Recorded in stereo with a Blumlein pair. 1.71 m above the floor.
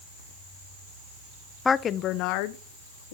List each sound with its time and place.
1.6 s a woman speaking: 10° left, 0.6 m; by 3.1 s 55° left, 1.7 m